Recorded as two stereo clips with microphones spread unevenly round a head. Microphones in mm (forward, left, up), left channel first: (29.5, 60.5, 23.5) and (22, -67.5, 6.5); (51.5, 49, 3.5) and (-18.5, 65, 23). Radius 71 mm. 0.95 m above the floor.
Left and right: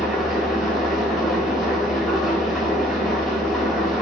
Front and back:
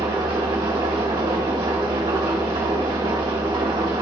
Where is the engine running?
175° left, 1.7 m.